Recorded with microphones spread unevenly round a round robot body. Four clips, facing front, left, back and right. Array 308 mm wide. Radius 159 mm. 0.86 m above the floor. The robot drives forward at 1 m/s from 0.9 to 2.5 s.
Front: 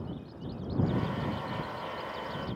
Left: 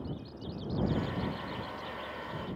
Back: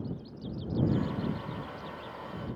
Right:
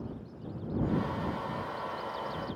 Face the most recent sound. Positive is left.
No sound to turn to.